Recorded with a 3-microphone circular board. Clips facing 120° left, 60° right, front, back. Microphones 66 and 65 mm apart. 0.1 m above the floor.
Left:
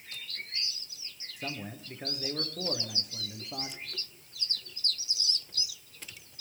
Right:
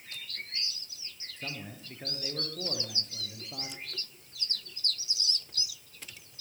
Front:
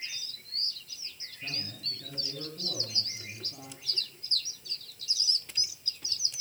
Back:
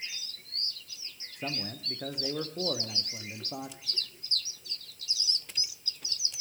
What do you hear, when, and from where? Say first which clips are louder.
1.4 s a man speaking: left 3 dB, back 5 dB; 165° right, 5.5 m